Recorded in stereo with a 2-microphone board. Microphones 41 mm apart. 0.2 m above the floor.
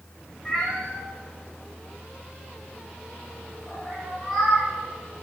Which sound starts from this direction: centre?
A cat meowing, at 0.5 s.